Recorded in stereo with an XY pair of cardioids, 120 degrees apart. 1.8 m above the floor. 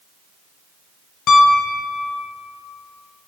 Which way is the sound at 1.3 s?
65° left.